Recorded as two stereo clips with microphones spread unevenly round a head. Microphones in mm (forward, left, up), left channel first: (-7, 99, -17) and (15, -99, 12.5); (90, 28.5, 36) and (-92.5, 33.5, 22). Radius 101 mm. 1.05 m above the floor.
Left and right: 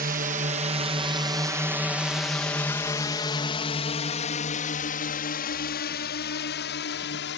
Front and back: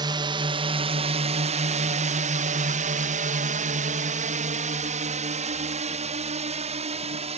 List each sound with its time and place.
0.0 s a drone: 125° right; by 7.4 s 125° left